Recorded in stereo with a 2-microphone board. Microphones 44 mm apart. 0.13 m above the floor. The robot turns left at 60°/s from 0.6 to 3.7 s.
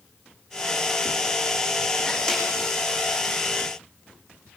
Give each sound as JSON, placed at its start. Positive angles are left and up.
{"t": 2.3, "sound": "a snare drum", "side_deg": 15, "distance_m": 8.0}